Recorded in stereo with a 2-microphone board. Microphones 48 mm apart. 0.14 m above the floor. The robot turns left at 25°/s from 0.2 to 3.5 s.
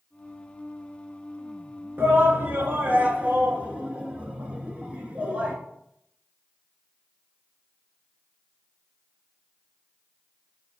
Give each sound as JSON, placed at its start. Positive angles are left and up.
{"t": 2.0, "sound": "a shout", "side_deg": -45, "distance_m": 1.5}